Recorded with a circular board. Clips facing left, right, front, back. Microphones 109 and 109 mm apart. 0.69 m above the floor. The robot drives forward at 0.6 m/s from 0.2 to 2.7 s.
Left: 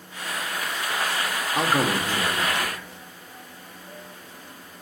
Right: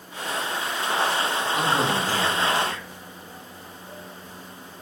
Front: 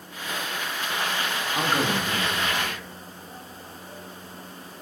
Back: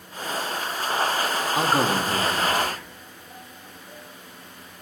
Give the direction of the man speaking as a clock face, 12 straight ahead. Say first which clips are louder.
Left 2 dB, back 3 dB; 8 o'clock.